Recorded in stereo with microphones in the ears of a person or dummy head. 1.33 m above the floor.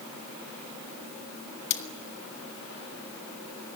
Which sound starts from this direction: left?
Cutlery clinking, at 1.7 s.